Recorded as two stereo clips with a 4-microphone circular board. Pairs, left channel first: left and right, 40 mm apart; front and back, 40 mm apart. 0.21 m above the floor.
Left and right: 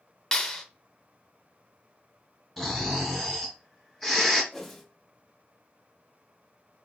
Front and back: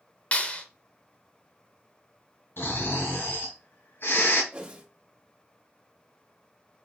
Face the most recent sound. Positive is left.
turn(degrees=160)